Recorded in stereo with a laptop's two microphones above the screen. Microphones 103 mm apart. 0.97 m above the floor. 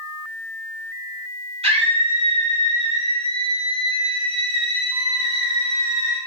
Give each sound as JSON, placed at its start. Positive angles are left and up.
{"t": 1.6, "sound": "a scream", "side_deg": -80, "distance_m": 3.0}